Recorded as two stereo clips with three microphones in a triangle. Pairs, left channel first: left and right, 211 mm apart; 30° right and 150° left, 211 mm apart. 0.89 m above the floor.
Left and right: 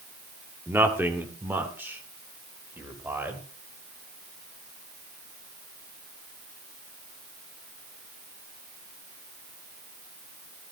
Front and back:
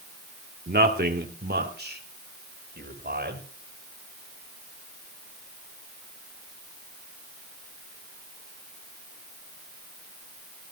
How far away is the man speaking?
About 1.7 m.